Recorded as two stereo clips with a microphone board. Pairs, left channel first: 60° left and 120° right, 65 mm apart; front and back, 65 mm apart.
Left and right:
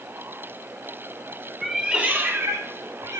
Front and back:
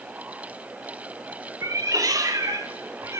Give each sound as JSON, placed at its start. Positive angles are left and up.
{"t": 1.6, "sound": "a cat meowing", "azimuth_deg": 155, "distance_m": 1.2}